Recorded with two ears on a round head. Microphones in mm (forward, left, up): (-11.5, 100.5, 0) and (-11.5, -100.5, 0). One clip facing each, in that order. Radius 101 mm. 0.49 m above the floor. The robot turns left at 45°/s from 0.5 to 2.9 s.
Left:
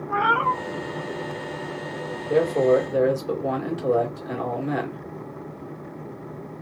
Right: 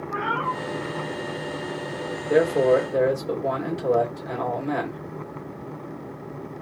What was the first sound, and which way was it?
A cat meowing, 65° left (ahead or behind).